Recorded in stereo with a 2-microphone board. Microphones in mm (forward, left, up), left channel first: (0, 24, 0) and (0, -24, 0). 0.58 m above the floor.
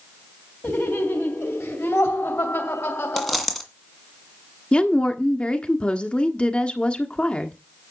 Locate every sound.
0.6 s laughter: 60° left (ahead or behind), 3 m; by 3.5 s 70° left (ahead or behind), 2 m
3.2 s a dropped coin: 5° left (ahead or behind), 2 m
4.7 s a woman speaking: 25° left (ahead or behind), 1.4 m